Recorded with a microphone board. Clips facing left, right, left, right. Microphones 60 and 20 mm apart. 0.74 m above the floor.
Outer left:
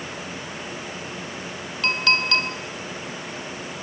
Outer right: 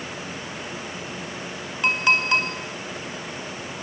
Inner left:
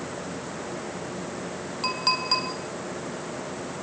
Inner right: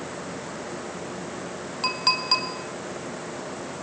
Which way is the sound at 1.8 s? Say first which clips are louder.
Outer right 1 dB, inner right 2 dB; 20° right (ahead or behind).